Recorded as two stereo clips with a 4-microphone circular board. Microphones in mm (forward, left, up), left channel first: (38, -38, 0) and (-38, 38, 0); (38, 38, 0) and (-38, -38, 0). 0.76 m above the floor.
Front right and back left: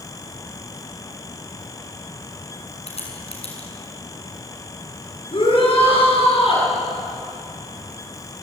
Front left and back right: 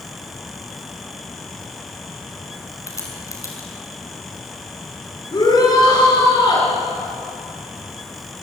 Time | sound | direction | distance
2.9 | a crack | 20° right | 6 m
5.3 | a shout | 5° right | 9 m